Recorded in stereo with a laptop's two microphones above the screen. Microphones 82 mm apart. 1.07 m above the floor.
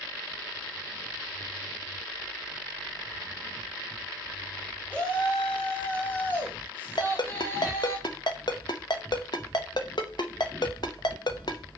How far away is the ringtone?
About 0.7 m.